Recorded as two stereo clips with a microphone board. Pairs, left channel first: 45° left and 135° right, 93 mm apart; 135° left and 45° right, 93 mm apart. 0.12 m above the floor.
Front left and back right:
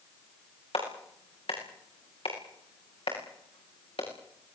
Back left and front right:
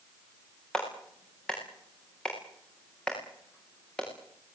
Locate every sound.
0.7 s a clap: 55° left, 8.5 m